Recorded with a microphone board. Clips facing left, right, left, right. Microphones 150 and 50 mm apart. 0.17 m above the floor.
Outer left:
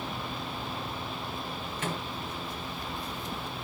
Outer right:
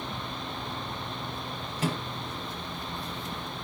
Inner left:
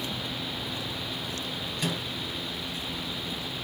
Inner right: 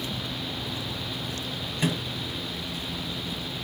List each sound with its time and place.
1.8 s a microwave: 35° right (ahead or behind), 2.5 m